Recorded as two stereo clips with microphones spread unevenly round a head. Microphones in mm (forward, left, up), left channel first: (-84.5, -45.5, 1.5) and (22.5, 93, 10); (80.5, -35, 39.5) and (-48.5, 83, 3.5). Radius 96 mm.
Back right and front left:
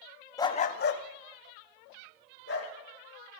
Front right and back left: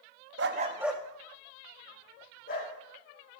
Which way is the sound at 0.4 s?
165° left.